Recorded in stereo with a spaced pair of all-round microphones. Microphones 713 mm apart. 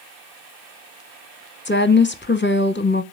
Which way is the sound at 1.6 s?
15° left (ahead or behind).